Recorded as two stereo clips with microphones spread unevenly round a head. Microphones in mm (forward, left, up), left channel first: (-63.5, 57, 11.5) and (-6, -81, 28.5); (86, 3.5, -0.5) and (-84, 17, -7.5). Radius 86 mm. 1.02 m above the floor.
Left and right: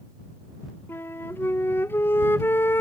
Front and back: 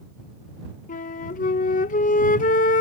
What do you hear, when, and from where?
0.9 s a flute: 40° left